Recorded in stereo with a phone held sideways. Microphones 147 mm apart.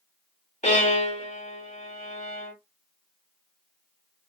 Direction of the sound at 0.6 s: 55° left (ahead or behind).